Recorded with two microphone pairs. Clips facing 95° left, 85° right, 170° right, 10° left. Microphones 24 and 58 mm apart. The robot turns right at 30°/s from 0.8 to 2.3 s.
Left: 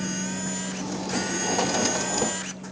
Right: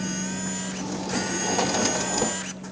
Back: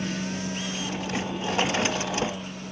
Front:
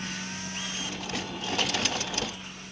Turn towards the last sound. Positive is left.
turn(degrees=-165)